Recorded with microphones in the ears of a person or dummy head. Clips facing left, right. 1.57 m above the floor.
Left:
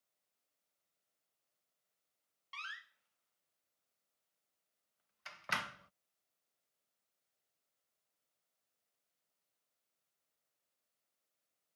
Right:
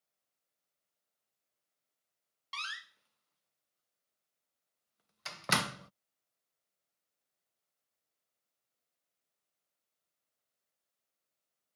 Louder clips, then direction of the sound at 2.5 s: Right 6 dB; 65° right (ahead or behind).